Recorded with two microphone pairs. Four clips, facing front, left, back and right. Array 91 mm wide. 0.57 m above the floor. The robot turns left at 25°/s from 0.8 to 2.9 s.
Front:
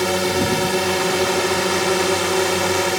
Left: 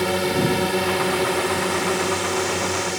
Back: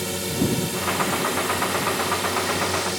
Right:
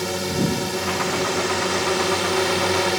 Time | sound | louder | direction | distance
0.0 | a drone | left 3 dB, front 6 dB | 25° left | ?